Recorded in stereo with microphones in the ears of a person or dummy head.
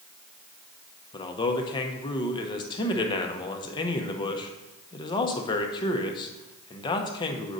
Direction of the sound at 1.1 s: 25° left (ahead or behind).